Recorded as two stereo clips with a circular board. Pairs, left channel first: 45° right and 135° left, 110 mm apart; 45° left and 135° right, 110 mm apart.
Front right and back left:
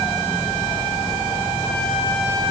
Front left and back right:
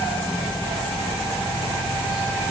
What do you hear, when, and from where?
Only background noise.